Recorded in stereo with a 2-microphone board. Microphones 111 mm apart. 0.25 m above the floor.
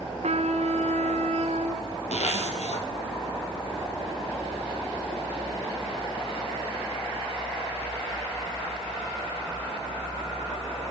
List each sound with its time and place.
0.2 s a trumpet: 80° right, 1.7 m
2.1 s a zipper: 85° left, 3.5 m